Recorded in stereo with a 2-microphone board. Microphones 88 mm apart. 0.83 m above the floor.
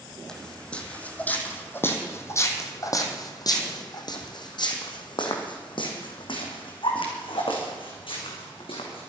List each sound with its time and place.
0.3 s footsteps: 10° left (ahead or behind), 2.5 m; by 9.1 s 80° left, 4.5 m